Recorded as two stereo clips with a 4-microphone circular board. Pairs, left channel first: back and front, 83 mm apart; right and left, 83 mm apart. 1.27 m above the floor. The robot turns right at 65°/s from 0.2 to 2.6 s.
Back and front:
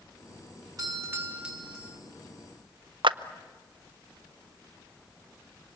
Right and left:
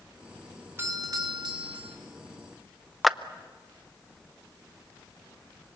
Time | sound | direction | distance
0.8 | a doorbell | 30° left | 2.5 m
3.0 | a clap | straight ahead | 0.6 m